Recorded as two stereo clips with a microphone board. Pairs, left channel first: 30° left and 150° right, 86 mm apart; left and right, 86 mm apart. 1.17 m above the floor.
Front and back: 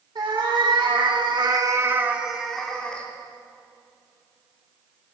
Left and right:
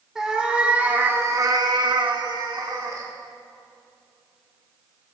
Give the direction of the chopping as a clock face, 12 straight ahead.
I don't hear chopping.